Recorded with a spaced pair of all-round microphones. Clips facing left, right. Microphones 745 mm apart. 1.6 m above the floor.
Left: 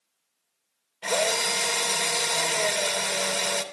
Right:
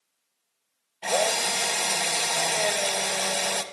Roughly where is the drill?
Centre.